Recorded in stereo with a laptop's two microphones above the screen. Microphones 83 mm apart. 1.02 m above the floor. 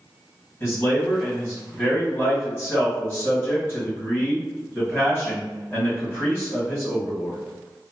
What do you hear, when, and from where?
0.6 s a man speaking: 25° left (ahead or behind), 1.7 m